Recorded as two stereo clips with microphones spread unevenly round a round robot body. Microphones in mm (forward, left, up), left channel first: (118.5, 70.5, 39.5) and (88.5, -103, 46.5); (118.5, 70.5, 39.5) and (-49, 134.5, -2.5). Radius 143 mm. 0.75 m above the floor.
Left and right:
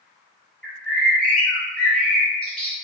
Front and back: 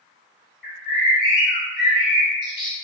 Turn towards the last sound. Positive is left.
turn(degrees=0)